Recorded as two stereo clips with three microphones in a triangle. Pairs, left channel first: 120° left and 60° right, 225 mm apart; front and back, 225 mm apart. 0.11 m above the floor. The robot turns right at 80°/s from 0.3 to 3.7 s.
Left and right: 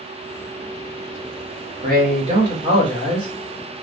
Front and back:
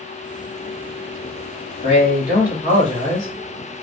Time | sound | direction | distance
1.8 | a man speaking | 45° right | 1.7 m